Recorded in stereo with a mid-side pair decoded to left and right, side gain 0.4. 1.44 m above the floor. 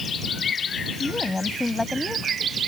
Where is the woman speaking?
25° left; by 2.6 s 10° left.